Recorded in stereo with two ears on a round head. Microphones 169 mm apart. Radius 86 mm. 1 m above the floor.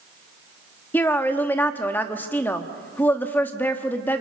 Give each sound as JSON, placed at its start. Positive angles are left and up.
{"t": 0.9, "sound": "a woman speaking", "side_deg": 10, "distance_m": 1.3}